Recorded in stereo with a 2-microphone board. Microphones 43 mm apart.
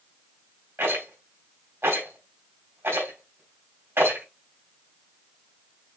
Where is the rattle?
85° right, 3.5 m.